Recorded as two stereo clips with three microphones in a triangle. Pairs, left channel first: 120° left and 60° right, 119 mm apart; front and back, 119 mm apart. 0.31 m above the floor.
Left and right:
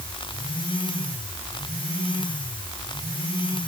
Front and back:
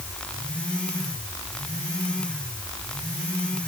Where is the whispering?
No whispering in this recording.